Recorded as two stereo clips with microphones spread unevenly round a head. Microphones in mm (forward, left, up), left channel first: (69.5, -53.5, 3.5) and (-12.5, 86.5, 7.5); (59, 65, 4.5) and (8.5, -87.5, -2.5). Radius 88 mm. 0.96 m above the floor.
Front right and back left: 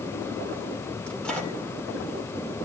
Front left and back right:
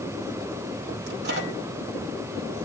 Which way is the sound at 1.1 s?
145° right.